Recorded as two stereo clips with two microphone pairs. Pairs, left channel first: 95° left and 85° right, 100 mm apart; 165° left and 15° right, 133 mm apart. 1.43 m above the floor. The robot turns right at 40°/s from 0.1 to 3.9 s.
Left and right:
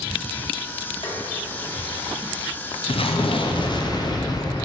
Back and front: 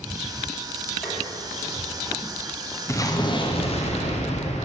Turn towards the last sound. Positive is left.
turn(degrees=140)